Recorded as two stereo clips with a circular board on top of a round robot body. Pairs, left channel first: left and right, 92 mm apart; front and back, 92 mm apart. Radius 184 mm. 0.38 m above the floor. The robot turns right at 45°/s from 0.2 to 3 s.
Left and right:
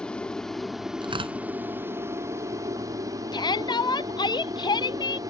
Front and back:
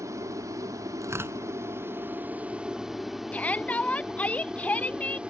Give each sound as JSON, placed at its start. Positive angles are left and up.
{"t": 0.0, "sound": "an aircraft", "azimuth_deg": 165}
{"t": 1.0, "sound": "tearing paper", "azimuth_deg": -125}
{"t": 3.3, "sound": "a shout", "azimuth_deg": 70}